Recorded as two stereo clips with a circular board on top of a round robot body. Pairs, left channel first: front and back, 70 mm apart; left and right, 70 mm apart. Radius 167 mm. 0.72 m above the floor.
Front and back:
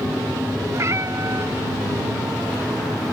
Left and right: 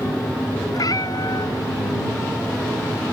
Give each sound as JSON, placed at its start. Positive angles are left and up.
{"t": 0.7, "sound": "a cat meowing", "azimuth_deg": 125}